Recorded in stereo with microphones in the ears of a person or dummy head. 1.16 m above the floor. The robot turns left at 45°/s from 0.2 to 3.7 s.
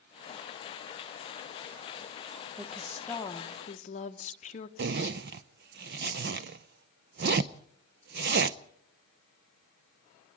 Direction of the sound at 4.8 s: 55° right (ahead or behind).